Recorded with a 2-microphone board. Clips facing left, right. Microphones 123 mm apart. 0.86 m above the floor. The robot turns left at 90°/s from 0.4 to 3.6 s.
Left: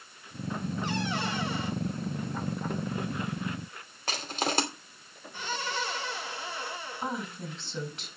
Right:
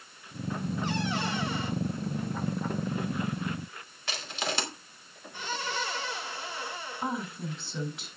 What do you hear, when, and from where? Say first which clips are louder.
4.1 s crushing: left 3 dB; 45° left (ahead or behind), 2.5 m
7.0 s a woman speaking: right 2 dB; centre (ahead or behind), 4 m